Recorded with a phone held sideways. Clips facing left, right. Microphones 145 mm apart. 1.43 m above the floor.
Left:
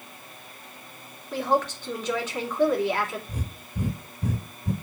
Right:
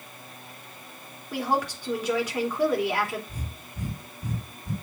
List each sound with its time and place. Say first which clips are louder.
1.3 s a woman speaking: left 2 dB; 10° right (ahead or behind), 3.5 m
3.3 s breathing: left 4 dB; 65° left (ahead or behind), 1.6 m